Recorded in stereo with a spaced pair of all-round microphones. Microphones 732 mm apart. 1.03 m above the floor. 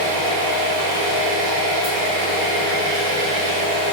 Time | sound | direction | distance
0.0 | an engine running | 80° right | 2.0 m